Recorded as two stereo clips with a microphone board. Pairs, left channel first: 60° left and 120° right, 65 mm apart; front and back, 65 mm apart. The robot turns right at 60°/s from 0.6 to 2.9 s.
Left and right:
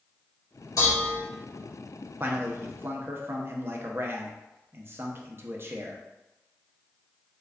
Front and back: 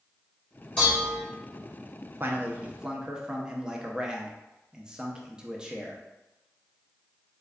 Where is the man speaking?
150° right, 0.5 m; by 6.0 s 110° right, 0.5 m.